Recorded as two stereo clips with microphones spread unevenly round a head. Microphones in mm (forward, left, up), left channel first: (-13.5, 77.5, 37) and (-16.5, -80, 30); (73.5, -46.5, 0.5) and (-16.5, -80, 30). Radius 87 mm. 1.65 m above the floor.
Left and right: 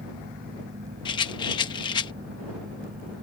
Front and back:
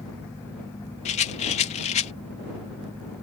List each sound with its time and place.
0.0 s a fan: 50° right
1.1 s a rattle: 30° left